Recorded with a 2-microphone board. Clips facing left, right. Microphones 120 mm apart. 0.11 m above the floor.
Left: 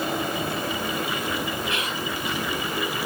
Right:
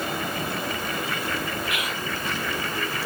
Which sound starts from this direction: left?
Whispering, at 1.7 s.